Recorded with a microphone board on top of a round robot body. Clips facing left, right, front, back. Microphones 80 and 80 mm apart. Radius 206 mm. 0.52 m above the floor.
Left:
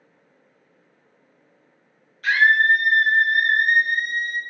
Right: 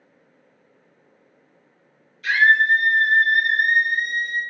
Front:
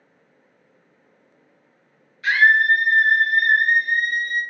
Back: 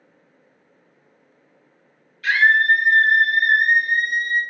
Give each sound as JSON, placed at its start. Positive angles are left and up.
{"t": 2.2, "sound": "a scream", "azimuth_deg": 65, "distance_m": 1.7}